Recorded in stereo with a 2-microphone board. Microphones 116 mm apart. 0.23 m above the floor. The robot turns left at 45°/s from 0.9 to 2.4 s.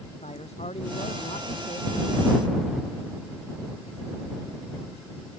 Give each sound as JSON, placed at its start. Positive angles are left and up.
{"t": 0.2, "sound": "a man speaking", "azimuth_deg": 95}